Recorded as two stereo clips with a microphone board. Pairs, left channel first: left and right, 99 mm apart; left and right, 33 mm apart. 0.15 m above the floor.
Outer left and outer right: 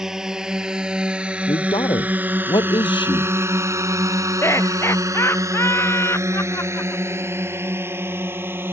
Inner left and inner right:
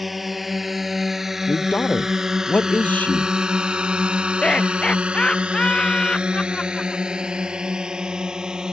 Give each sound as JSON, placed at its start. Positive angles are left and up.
{"t": 0.0, "sound": "a drone", "side_deg": -5}
{"t": 1.5, "sound": "a man speaking", "side_deg": 55}
{"t": 4.4, "sound": "laughter", "side_deg": 25}